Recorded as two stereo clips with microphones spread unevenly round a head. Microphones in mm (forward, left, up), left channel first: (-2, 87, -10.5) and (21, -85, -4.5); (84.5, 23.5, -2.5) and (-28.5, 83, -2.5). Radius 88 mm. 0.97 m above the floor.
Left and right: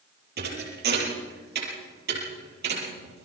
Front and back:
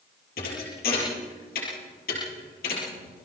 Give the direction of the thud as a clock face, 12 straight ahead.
2 o'clock.